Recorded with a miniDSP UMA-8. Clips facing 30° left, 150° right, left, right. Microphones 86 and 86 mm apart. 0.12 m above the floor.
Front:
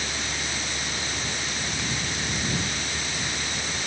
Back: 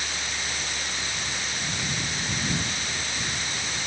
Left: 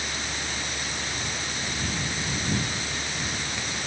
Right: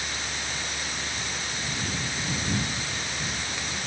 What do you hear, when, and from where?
0.0 s a vehicle: 25° left